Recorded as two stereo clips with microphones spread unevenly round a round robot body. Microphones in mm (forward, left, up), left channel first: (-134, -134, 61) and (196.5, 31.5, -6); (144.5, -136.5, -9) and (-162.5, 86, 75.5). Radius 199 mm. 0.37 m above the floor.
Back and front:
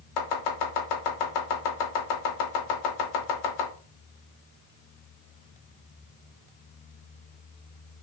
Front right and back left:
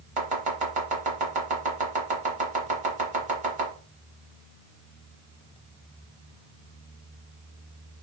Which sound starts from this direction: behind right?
Chopping, at 0.2 s.